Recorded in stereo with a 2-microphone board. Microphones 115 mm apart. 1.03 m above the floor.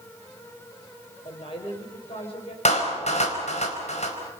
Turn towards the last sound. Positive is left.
turn(degrees=70)  # may be behind; listen again after turning